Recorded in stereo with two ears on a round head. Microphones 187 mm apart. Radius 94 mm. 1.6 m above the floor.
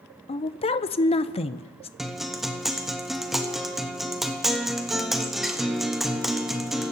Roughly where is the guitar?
Centre.